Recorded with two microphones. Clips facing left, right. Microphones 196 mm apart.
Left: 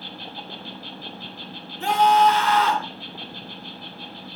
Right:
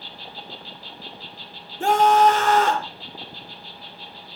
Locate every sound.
0.0 s an insect: 55° left (ahead or behind), 1.2 m
1.8 s a scream: 45° right (ahead or behind), 2 m